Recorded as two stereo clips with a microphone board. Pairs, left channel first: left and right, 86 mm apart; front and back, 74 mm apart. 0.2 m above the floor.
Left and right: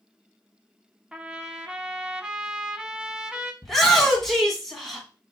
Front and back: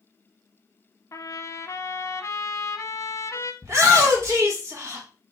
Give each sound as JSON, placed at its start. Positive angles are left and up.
{"t": 1.1, "sound": "a trumpet", "azimuth_deg": -15, "distance_m": 0.6}
{"t": 3.6, "sound": "a shout", "azimuth_deg": 175, "distance_m": 1.5}